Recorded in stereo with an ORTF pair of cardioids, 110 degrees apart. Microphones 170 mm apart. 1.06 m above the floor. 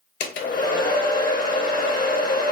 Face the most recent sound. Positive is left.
turn(degrees=60)